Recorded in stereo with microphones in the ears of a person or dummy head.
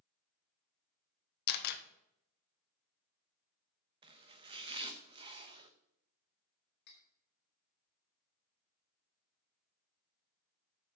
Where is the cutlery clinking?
55° left (ahead or behind), 2.5 m.